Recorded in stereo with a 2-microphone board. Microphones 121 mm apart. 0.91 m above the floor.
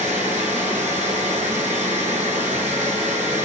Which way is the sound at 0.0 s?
75° right (ahead or behind).